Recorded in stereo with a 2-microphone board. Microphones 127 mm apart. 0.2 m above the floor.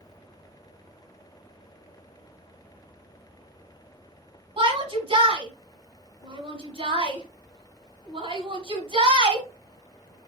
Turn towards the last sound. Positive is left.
turn(degrees=-40)  # may be behind; listen again after turning